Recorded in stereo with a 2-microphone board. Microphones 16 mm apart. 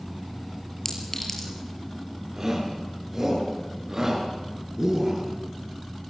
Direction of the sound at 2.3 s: 25° right (ahead or behind).